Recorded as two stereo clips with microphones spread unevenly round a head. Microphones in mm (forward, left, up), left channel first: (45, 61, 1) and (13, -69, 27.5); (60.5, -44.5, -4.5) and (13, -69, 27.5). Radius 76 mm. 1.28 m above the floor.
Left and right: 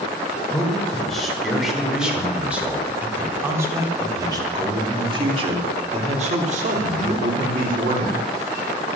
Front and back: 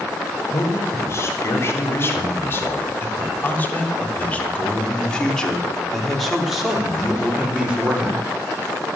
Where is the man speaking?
10° right, 5 m; by 8.2 s 85° right, 3.5 m.